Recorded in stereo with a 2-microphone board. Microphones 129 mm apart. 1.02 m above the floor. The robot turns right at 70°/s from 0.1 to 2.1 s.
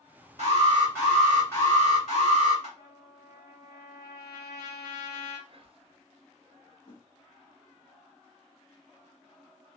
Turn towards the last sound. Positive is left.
turn(degrees=80)